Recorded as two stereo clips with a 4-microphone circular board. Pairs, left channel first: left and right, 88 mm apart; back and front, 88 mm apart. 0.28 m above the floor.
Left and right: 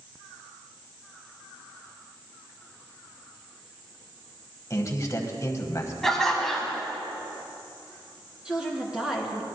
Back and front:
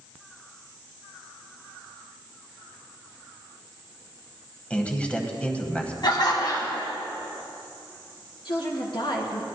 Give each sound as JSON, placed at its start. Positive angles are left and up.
{"t": 4.7, "sound": "a man speaking", "azimuth_deg": 110, "distance_m": 1.4}
{"t": 6.0, "sound": "laughter", "azimuth_deg": 175, "distance_m": 1.8}
{"t": 8.4, "sound": "a woman speaking", "azimuth_deg": -170, "distance_m": 3.0}